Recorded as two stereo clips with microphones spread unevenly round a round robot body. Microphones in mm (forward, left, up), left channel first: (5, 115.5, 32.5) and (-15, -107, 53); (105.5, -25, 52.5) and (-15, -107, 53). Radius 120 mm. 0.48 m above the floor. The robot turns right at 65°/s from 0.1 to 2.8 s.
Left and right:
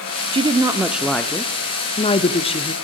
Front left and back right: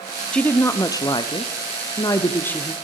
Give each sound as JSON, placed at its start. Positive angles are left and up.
{"t": 0.3, "sound": "a woman speaking", "azimuth_deg": -45, "distance_m": 0.8}